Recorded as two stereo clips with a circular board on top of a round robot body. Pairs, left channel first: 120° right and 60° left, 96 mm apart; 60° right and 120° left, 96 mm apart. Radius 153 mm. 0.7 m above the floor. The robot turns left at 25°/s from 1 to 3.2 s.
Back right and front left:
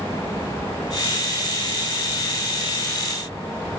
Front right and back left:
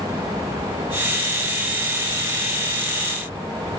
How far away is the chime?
No chime in this recording.